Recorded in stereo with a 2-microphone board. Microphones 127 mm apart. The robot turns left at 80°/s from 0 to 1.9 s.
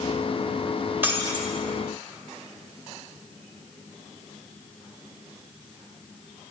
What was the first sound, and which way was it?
Breaking glass, 20° right.